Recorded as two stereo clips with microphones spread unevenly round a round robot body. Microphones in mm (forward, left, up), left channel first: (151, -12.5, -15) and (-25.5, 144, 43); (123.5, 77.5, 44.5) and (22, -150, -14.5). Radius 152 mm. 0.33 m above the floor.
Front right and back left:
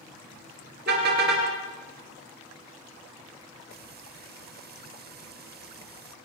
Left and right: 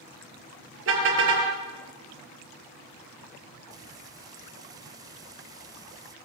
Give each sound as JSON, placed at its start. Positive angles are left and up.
{"t": 0.9, "sound": "a car horn", "azimuth_deg": -160, "distance_m": 3.5}
{"t": 3.7, "sound": "frying", "azimuth_deg": -170, "distance_m": 0.9}